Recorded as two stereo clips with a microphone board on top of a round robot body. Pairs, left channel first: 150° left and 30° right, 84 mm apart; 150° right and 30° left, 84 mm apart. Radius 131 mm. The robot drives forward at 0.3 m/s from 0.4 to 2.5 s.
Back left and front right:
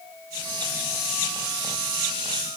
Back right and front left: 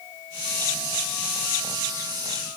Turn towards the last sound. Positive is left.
No sound to turn to.